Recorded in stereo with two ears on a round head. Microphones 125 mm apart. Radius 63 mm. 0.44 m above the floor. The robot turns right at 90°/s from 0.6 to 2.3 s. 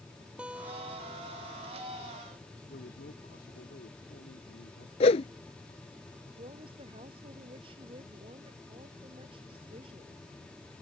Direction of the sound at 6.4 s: 40° right (ahead or behind).